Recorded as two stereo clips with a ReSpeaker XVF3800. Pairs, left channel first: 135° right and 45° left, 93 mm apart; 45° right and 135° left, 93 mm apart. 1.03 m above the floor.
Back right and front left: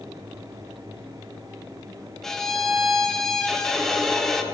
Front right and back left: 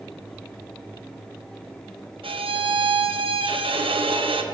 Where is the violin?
140° left, 0.6 m.